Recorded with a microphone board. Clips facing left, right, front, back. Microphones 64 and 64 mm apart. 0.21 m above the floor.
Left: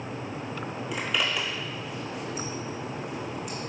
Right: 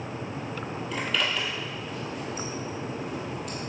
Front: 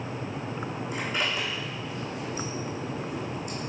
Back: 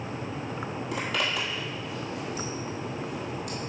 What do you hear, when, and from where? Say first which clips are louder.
0.9 s a zipper: even, back 1 dB; 170° left, 1.3 m